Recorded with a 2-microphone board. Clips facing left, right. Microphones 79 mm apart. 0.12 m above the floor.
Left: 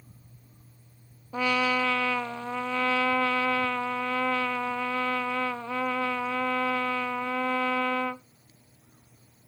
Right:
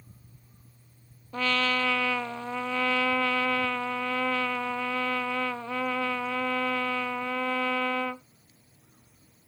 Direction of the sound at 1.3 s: 15° left (ahead or behind).